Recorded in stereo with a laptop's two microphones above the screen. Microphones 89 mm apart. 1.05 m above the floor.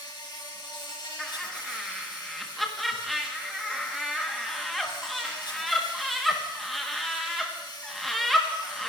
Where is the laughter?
Centre (ahead or behind), 1.2 m.